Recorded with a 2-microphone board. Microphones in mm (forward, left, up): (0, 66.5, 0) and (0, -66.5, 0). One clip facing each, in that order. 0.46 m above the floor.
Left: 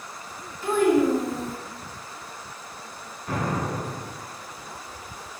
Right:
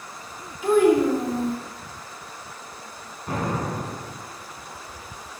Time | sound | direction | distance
0.6 | a child speaking | 15° right (ahead or behind) | 0.9 m
3.3 | an explosion | 30° right (ahead or behind) | 1.1 m